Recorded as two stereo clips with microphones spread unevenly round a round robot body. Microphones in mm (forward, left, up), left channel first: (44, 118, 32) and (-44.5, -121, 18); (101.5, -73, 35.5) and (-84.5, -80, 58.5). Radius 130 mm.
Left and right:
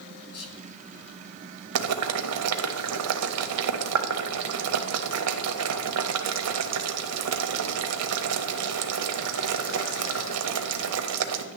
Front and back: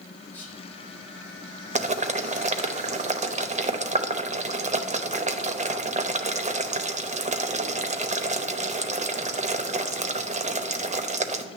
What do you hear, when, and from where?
0.3 s whispering: 80° left, 1.7 m
1.8 s boiling: 125° right, 0.9 m